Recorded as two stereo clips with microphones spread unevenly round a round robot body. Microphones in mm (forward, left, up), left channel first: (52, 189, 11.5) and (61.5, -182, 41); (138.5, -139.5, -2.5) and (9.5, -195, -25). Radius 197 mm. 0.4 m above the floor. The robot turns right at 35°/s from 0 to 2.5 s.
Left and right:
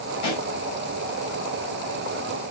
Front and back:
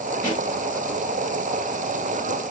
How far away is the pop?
About 3 m.